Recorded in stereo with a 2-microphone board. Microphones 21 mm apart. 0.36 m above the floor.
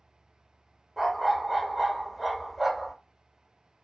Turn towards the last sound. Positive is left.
turn(degrees=0)  # may be behind; listen again after turning